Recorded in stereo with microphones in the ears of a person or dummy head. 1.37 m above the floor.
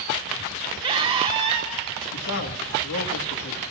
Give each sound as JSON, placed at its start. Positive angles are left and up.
{"t": 0.8, "sound": "a scream", "side_deg": -30, "distance_m": 1.2}
{"t": 2.1, "sound": "a man speaking", "side_deg": 80, "distance_m": 1.3}